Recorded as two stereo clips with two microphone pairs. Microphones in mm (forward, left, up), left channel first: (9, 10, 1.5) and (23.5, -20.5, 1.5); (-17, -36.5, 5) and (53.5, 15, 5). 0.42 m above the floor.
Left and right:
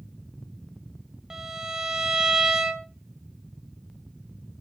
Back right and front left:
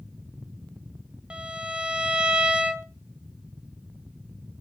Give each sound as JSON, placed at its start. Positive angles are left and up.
{"t": 1.3, "sound": "a violin", "azimuth_deg": -25, "distance_m": 0.9}